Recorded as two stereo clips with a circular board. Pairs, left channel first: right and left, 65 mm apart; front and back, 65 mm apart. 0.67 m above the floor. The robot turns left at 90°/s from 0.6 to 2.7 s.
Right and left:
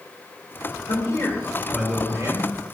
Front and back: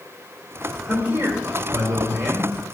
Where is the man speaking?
105° right, 2.5 m; by 2.5 s 110° left, 2.5 m.